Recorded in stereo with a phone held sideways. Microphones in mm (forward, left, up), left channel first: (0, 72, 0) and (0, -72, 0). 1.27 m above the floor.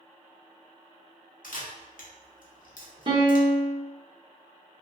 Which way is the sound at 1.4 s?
75° left (ahead or behind).